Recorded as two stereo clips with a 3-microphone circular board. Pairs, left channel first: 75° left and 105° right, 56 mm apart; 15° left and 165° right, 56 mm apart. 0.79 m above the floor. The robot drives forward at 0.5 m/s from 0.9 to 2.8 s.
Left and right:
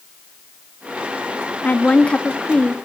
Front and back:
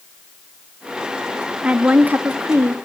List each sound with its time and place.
1.6 s a woman speaking: 130° left, 0.7 m; by 2.8 s 155° left, 1.1 m